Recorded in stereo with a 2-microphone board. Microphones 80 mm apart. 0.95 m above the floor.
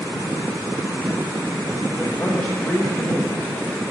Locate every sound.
1.9 s a man speaking: 25° left (ahead or behind), 1.1 m